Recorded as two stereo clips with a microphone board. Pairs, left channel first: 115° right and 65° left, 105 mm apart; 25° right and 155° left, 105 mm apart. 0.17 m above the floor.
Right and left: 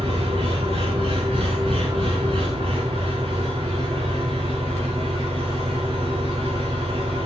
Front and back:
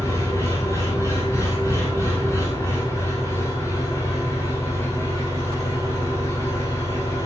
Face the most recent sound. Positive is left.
turn(degrees=40)